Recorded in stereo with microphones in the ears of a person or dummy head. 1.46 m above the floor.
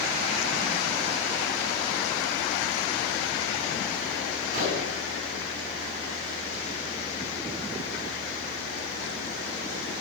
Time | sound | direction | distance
4.5 | a gunshot | 45° right (ahead or behind) | 7 m